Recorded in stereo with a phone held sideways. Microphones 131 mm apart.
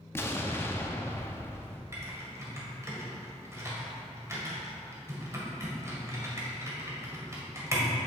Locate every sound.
0.1 s an explosion: 20° left (ahead or behind), 0.7 m
1.9 s typing on a keyboard: 25° right (ahead or behind), 1.8 m